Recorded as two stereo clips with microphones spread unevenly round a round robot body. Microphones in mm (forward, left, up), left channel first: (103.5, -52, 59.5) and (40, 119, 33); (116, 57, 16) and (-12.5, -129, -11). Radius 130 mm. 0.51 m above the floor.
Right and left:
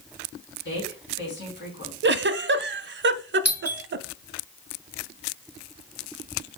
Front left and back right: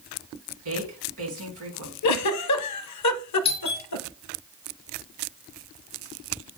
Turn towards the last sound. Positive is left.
turn(degrees=80)